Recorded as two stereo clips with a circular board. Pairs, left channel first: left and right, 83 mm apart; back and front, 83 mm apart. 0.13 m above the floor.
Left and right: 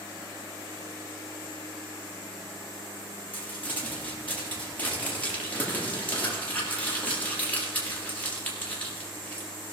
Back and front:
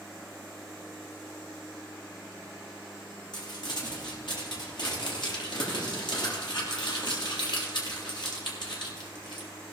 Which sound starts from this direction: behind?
Crumpling, at 3.3 s.